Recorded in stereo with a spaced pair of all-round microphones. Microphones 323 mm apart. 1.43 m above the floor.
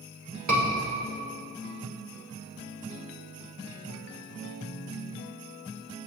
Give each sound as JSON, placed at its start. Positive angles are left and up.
{"t": 0.5, "sound": "a scream", "side_deg": -55, "distance_m": 5.0}